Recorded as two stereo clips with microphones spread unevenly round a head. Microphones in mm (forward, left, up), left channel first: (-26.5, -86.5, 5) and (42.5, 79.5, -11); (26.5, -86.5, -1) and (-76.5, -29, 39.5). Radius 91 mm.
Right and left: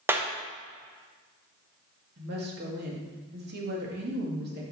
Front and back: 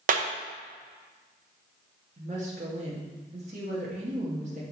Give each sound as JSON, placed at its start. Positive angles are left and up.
{"t": 0.1, "sound": "a clap", "azimuth_deg": 140, "distance_m": 0.8}
{"t": 2.2, "sound": "a woman speaking", "azimuth_deg": 100, "distance_m": 1.8}